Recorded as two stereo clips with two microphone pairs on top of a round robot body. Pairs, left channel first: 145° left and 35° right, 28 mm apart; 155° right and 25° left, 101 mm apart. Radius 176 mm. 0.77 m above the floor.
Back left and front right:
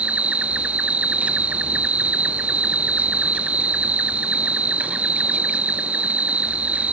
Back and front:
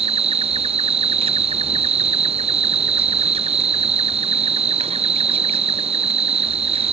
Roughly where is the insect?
Ahead.